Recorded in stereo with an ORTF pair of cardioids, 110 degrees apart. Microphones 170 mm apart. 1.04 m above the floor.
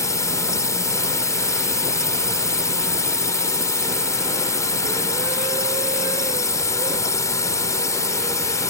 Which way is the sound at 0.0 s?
20° left.